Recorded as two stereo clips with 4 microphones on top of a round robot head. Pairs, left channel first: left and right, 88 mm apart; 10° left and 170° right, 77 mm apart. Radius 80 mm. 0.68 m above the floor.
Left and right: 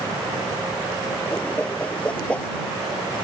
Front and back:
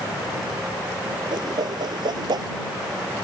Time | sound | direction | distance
1.3 | a whoosh | 170° left | ?